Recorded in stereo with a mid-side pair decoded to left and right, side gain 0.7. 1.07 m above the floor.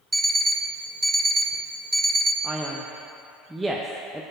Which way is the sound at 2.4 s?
10° right.